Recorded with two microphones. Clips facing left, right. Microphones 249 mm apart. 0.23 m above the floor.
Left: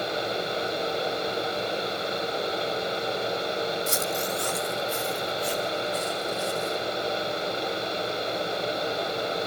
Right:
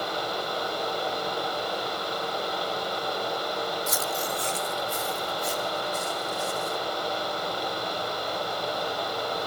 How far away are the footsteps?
About 0.6 m.